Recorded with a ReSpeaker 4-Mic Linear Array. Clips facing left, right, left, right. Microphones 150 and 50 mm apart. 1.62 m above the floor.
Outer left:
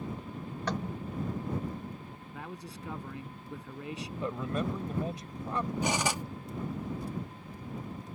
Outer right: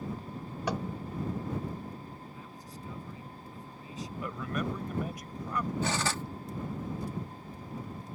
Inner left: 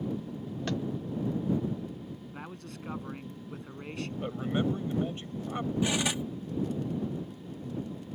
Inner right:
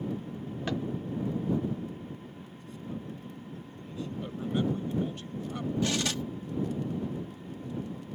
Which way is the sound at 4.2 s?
25° left (ahead or behind).